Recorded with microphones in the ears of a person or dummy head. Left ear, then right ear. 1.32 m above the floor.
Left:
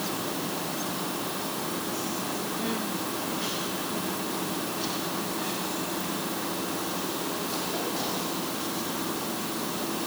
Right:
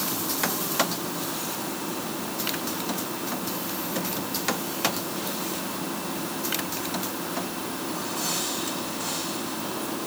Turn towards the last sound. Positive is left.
No sound to turn to.